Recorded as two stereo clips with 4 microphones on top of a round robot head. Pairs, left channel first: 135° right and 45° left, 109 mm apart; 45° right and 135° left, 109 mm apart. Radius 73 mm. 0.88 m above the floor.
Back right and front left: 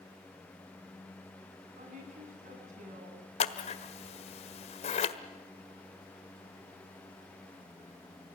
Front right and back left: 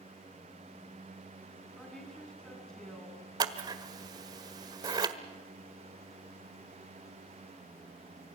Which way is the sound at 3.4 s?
170° right.